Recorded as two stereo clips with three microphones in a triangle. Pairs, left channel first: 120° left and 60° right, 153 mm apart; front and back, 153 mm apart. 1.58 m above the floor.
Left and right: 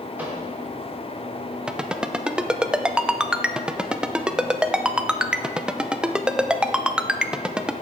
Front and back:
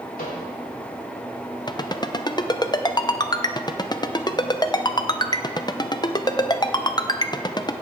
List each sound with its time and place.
0.2 s a microwave: 20° left, 3.5 m
1.7 s a ringtone: 20° left, 0.6 m